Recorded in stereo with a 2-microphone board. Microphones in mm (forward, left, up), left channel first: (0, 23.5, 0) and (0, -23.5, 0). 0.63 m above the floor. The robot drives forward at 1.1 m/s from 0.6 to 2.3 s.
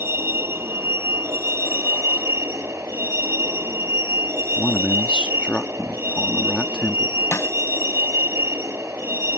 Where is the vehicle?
65° right (ahead or behind); by 9.4 s 80° right.